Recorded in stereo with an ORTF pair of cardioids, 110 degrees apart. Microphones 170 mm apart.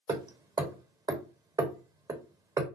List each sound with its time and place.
0.1 s hammering: 25° right, 1.0 m